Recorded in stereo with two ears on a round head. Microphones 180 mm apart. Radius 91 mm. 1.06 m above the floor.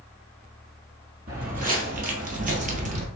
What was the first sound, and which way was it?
Footsteps, 45° right (ahead or behind).